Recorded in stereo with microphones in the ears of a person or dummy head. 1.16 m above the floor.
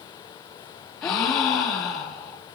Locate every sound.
1.0 s a gasp: 25° left (ahead or behind), 1.3 m